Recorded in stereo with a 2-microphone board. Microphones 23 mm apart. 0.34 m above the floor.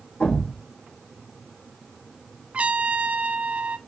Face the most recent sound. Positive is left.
turn(degrees=-90)